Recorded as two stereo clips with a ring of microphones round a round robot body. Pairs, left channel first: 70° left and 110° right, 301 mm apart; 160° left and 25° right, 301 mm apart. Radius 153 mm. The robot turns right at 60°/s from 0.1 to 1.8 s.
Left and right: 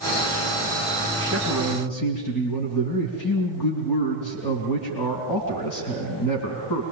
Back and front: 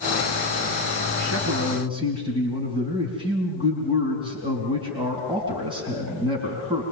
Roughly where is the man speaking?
Ahead.